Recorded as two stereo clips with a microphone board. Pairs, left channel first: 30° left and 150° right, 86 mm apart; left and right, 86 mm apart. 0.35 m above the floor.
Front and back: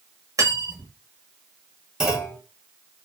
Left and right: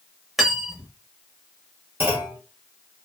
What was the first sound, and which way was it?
Cutlery clinking, 175° right.